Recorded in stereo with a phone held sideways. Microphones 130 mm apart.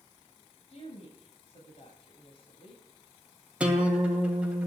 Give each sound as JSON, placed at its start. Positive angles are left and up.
{"t": 0.7, "sound": "a woman speaking", "side_deg": 55, "distance_m": 8.0}
{"t": 3.6, "sound": "a guitar", "side_deg": -10, "distance_m": 2.5}